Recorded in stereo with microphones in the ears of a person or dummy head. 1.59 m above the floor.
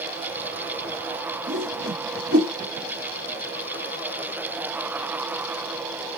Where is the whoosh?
50° right (ahead or behind), 1.9 m.